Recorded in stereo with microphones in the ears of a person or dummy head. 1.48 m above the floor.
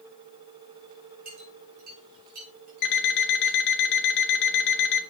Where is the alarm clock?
65° left (ahead or behind), 1.3 m.